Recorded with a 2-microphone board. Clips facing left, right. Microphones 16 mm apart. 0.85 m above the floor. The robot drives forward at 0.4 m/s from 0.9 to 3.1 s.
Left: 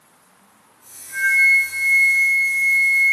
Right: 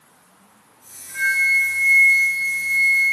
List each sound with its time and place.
1.1 s a flute: 30° right (ahead or behind), 1.9 m; by 3.1 s 25° right (ahead or behind), 2.5 m